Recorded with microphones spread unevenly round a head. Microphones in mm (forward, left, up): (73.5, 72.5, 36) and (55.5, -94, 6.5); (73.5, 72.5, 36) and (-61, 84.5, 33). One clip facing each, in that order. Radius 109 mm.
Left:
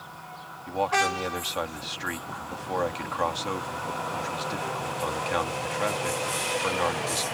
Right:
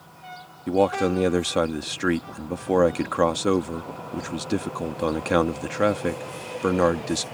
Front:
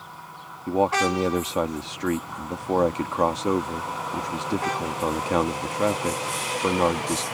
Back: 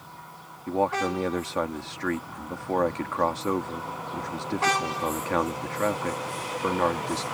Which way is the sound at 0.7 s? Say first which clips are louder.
Right 7 dB, front 3 dB; 80° right.